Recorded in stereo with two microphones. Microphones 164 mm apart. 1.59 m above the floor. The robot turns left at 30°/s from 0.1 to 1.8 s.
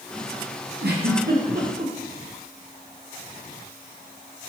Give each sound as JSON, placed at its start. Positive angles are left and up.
{"t": 0.8, "sound": "a giggle", "side_deg": -80, "distance_m": 0.8}